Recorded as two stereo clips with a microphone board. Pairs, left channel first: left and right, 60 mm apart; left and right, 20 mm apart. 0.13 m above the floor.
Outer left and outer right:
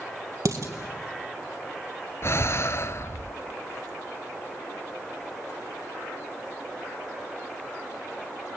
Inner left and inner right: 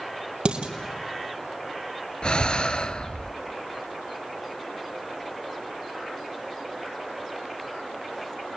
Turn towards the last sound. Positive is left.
turn(degrees=50)  # may be behind; listen again after turning